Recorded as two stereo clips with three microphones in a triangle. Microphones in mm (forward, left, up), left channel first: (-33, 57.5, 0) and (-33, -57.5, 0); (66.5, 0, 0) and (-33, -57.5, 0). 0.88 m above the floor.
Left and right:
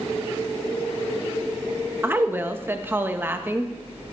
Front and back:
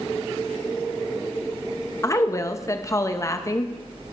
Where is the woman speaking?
25° right, 0.7 m.